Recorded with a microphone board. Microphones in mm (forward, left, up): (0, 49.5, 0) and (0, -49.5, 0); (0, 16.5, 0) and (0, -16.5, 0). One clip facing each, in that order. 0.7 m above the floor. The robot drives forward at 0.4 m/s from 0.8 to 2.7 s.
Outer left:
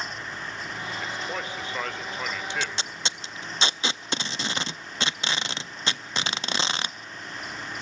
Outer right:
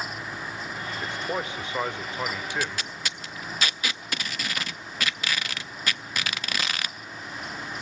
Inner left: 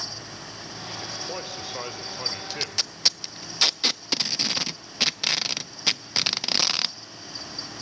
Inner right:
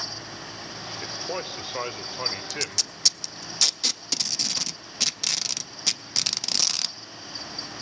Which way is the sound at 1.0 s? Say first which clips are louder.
Outer right 4 dB, inner right 3 dB; 20° right (ahead or behind).